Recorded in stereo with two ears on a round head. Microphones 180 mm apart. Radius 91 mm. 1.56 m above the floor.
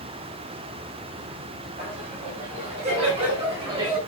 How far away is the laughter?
About 9 m.